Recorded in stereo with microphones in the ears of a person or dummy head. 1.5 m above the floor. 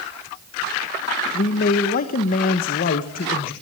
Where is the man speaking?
50° left (ahead or behind), 1.3 m.